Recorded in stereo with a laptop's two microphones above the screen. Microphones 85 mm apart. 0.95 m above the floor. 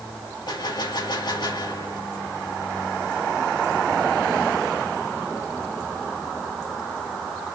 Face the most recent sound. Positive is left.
turn(degrees=55)  # may be behind; listen again after turning